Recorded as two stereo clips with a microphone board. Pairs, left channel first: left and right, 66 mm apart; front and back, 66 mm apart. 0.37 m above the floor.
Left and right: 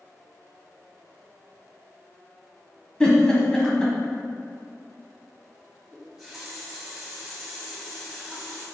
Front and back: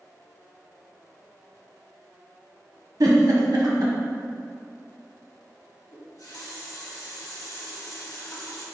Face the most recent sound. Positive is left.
turn(degrees=0)